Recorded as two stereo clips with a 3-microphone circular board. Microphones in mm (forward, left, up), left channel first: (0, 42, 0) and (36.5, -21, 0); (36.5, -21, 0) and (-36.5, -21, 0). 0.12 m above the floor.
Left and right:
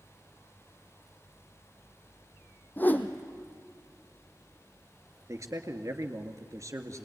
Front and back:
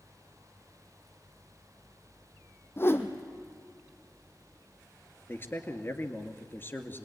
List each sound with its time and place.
2.8 s a whoosh: 55° left, 1.5 m
5.3 s a man speaking: 45° right, 1.9 m